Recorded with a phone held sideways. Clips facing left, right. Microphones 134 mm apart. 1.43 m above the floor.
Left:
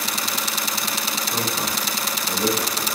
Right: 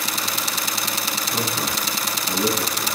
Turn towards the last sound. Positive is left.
turn(degrees=10)  # may be behind; listen again after turning